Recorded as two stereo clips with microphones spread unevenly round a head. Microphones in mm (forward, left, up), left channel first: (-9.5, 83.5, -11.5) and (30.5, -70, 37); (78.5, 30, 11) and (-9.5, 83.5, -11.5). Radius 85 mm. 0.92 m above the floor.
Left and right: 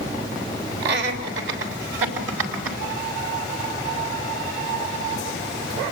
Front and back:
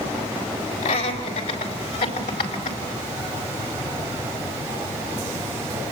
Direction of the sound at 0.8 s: 50° right.